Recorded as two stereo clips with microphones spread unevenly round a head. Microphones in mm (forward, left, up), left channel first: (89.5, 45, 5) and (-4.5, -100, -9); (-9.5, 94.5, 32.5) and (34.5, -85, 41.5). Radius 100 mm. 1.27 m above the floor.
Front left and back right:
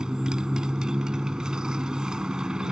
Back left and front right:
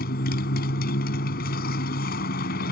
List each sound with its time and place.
0.0 s a motorcycle: 150° left